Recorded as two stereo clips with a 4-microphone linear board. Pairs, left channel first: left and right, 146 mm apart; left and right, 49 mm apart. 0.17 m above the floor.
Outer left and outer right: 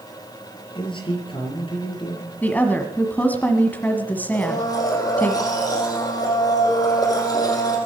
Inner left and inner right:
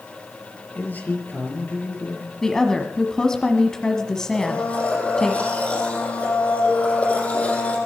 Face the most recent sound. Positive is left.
turn(degrees=25)  # may be behind; listen again after turning